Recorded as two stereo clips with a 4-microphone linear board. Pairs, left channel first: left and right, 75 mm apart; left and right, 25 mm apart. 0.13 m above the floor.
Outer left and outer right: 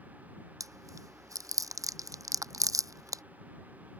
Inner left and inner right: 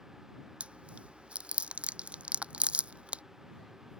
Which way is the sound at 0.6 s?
50° right (ahead or behind).